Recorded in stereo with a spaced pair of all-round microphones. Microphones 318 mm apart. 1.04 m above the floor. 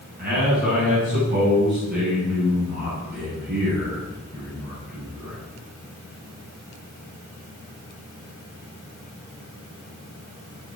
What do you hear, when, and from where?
0.2 s a man speaking: 30° right (ahead or behind), 8.5 m